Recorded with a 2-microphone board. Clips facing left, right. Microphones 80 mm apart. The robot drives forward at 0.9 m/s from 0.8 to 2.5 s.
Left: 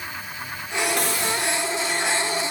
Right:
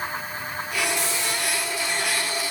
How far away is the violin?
I don't hear a violin.